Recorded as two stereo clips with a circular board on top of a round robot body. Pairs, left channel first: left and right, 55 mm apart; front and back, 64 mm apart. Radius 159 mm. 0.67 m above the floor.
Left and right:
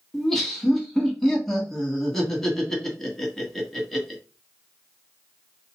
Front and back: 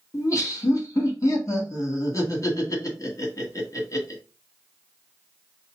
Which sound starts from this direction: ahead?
Laughter, at 0.1 s.